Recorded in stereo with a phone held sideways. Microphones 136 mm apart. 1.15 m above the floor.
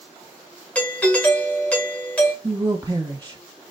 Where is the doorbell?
10° left (ahead or behind), 1.1 m.